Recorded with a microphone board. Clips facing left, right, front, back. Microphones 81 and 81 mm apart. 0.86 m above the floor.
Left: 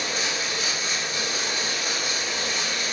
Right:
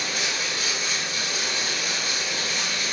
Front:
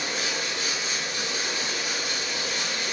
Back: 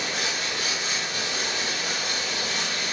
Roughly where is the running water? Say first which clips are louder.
Left 1 dB, back 1 dB; behind left.